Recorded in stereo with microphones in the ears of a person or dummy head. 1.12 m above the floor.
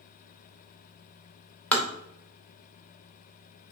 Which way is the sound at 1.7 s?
5° left (ahead or behind).